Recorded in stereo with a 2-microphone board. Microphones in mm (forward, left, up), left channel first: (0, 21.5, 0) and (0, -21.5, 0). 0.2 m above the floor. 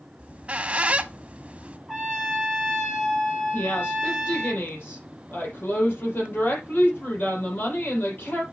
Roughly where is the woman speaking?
Left.